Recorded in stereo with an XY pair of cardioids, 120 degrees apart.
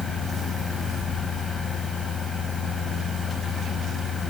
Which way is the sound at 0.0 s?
30° left.